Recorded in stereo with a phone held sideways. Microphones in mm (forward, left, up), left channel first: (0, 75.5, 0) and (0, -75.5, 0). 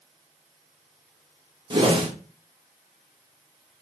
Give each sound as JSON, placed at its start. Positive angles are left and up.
{"t": 1.7, "sound": "a whoosh", "side_deg": -35, "distance_m": 0.7}